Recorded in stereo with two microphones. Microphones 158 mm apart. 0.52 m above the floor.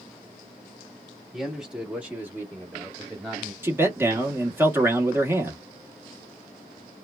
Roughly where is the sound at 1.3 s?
Centre.